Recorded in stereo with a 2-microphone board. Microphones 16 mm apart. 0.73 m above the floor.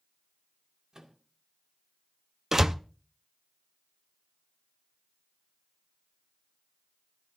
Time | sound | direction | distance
0.9 | a microwave | 45° right (ahead or behind) | 2 m
2.5 | a door slam | 30° right (ahead or behind) | 0.5 m